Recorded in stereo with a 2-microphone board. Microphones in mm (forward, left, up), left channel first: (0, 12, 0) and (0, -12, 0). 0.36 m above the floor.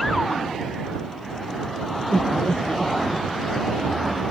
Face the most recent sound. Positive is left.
turn(degrees=30)  # may be behind; listen again after turning